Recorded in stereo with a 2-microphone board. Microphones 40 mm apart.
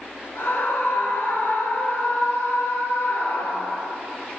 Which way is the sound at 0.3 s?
70° left (ahead or behind).